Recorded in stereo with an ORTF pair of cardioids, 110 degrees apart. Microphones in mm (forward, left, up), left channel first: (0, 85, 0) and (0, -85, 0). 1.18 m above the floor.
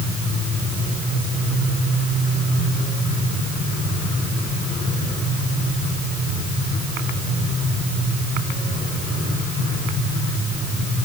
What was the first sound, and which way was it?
Only background noise.